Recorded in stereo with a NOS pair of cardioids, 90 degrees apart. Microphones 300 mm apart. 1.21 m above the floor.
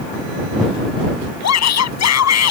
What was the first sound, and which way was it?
A shout, 60° left.